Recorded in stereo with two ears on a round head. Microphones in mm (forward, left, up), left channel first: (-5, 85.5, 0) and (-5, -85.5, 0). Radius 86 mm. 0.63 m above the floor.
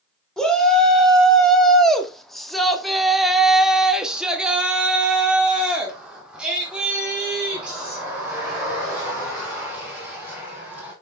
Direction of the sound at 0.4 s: 5° left (ahead or behind).